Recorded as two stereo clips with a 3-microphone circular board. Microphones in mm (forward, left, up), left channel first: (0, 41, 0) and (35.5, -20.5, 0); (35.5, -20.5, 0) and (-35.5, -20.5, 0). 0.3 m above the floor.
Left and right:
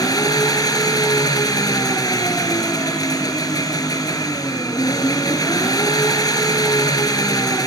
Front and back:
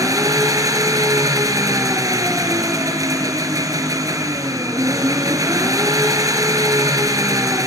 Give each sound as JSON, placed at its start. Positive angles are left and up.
{"t": 0.0, "sound": "an engine running", "azimuth_deg": 145, "distance_m": 1.5}